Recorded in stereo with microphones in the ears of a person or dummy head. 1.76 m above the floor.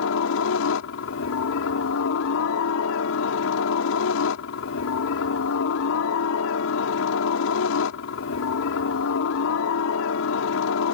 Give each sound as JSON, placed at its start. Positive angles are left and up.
{"t": 0.0, "sound": "a helicopter", "side_deg": 70}